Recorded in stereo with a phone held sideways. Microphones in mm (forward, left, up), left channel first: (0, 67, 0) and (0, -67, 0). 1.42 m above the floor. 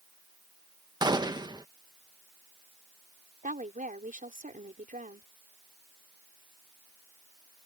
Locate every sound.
1.0 s a gunshot: 30° right (ahead or behind)
3.4 s a woman speaking: 80° right